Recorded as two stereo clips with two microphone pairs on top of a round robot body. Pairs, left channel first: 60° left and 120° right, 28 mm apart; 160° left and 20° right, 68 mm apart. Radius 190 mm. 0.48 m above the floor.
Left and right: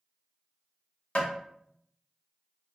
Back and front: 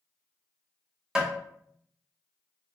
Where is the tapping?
60° left, 1.6 m.